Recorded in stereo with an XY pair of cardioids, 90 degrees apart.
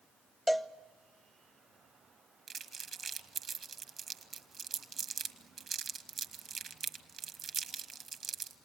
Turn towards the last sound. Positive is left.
turn(degrees=-60)